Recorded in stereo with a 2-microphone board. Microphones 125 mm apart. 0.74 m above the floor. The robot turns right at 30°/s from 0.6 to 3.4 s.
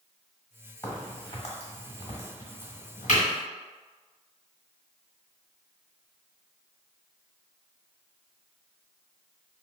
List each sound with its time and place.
0.8 s a crack: 20° left (ahead or behind), 1.7 m; by 3.2 s 85° left, 1.7 m